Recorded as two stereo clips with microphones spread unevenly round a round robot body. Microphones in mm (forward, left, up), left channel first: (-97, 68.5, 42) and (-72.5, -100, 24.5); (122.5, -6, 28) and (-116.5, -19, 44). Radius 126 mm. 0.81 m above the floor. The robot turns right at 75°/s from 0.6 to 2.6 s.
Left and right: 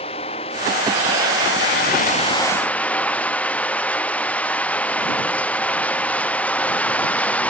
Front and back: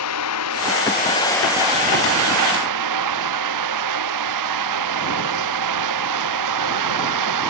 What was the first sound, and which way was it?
Running water, 30° left.